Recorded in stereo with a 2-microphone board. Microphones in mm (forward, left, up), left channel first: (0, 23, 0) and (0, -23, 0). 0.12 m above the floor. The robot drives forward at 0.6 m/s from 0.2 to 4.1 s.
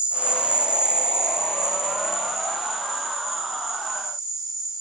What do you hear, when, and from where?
0.0 s an insect: 25° right (ahead or behind), 1.1 m; by 4.8 s 10° right (ahead or behind), 3.5 m